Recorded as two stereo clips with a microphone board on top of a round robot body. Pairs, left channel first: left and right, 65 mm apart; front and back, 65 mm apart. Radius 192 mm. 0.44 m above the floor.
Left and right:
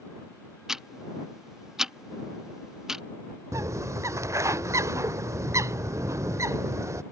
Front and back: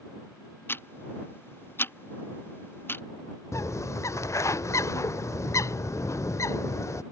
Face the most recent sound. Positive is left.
turn(degrees=-45)